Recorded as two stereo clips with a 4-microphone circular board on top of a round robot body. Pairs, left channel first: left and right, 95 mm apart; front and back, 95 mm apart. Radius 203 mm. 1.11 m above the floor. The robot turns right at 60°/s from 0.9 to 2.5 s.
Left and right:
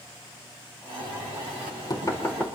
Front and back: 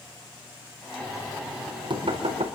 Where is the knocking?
85° left, 4.5 m; by 2.5 s 175° left, 4.5 m.